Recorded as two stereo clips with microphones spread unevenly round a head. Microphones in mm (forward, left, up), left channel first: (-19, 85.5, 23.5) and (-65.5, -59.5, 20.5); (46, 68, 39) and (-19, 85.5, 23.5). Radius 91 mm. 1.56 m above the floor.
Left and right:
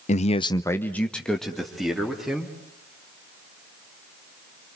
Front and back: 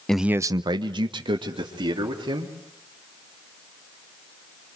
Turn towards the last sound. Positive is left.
turn(degrees=165)